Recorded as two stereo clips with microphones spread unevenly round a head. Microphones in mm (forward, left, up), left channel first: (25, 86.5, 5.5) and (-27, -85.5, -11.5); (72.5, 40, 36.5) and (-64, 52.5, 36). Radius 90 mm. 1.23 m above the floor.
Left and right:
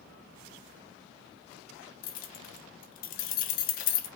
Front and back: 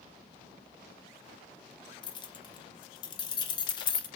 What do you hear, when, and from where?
2.0 s keys jangling: 45° left, 0.5 m